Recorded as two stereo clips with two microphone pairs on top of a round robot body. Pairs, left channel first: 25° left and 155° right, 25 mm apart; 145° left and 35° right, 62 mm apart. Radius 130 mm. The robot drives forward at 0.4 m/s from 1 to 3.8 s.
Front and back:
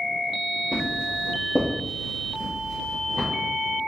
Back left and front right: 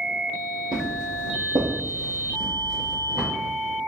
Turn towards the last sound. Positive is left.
turn(degrees=-120)